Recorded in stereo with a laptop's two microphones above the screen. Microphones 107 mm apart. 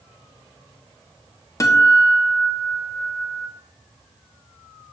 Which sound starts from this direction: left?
A guitar, at 1.6 s.